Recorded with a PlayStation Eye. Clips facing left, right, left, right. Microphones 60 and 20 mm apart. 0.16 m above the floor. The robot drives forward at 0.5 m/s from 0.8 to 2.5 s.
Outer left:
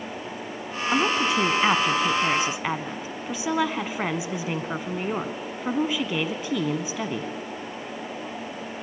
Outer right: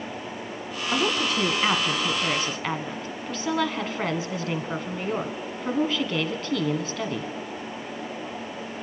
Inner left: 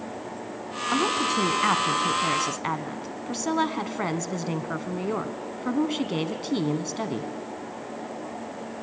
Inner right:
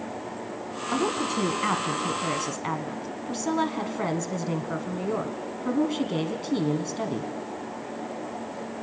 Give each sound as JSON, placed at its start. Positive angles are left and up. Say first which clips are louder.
{"t": 0.9, "sound": "a woman speaking", "louder": "outer left 2 dB, inner left 2 dB", "side_deg": 15, "distance_m": 1.1}